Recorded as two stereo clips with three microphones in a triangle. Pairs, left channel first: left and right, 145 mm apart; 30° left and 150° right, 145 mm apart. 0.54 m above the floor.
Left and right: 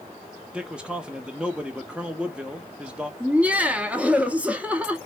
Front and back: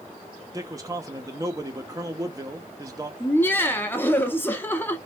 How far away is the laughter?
About 0.7 m.